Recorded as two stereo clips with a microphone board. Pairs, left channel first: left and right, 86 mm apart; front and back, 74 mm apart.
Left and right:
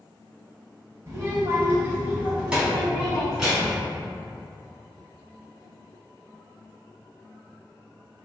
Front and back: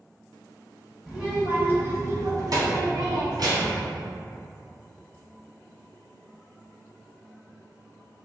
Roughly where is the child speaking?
Right.